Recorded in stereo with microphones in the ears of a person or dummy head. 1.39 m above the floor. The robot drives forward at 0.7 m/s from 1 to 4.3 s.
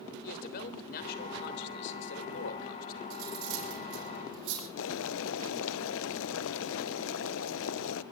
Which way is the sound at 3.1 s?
80° right.